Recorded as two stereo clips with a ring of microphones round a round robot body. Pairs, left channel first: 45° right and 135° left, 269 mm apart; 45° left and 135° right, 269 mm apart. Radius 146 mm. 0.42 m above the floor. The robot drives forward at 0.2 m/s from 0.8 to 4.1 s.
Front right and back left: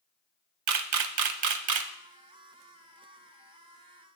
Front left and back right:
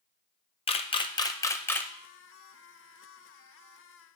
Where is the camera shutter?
115° left, 0.7 m; by 1.9 s 130° left, 0.9 m.